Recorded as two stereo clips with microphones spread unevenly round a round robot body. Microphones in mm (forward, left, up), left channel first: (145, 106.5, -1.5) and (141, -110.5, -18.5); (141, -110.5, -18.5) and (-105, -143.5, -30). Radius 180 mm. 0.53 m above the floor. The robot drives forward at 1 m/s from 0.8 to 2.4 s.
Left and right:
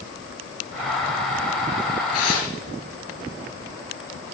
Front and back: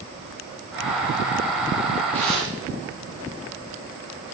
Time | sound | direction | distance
2.1 | tearing paper | 90° left | 4.5 m